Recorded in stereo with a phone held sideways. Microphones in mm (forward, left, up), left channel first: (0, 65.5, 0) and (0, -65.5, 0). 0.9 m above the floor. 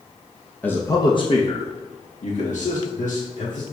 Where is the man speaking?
10° left (ahead or behind), 0.7 m; by 3.6 s 75° left (ahead or behind), 2.5 m.